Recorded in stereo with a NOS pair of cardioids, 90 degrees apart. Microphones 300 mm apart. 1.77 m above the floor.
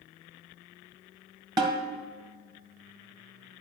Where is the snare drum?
15° right, 1.9 m.